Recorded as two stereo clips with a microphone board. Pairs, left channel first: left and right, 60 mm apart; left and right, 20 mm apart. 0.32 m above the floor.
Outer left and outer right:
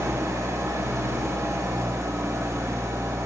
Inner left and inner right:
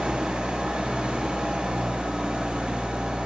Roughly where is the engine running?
Right.